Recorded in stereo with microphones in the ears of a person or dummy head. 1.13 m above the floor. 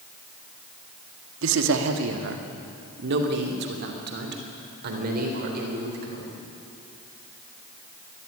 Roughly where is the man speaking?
Right.